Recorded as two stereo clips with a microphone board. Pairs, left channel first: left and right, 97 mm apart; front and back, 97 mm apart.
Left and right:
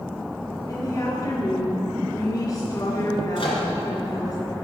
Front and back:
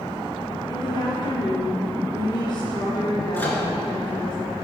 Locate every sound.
0.7 s a woman speaking: 35° left, 3 m
3.4 s a microwave: 70° left, 2.5 m